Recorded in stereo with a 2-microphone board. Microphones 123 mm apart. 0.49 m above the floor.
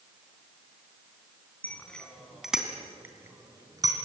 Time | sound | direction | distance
1.6 | a bicycle bell | 10° left (ahead or behind) | 3 m